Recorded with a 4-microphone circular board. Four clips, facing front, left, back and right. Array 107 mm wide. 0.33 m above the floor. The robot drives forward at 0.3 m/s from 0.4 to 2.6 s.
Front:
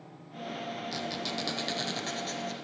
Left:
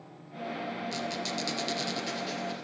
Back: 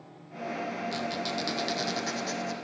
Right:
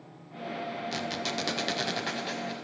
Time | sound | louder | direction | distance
0.9 | a squeak | right 1 dB, back 3 dB | 85° right | 1.0 m